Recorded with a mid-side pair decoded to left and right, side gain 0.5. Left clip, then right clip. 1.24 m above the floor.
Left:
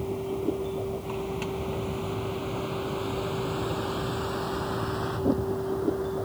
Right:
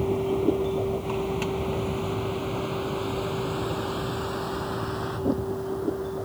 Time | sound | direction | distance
0.0 | a vehicle | 35° right | ?